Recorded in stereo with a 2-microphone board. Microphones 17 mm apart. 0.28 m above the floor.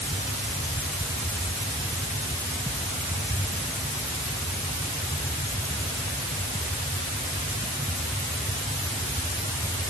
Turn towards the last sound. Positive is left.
No sound to turn to.